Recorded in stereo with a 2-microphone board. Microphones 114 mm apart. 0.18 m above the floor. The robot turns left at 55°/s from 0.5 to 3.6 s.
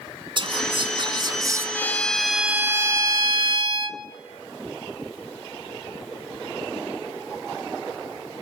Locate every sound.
0.4 s whispering: 80° right, 2 m; by 1.6 s 145° right, 2 m
1.8 s a violin: 25° left, 0.8 m; by 4.0 s 75° right, 0.8 m